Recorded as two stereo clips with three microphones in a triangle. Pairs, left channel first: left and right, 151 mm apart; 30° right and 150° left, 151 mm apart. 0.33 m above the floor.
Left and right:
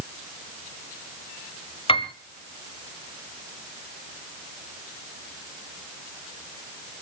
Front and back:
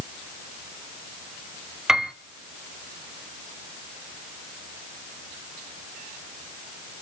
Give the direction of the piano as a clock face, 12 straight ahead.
10 o'clock.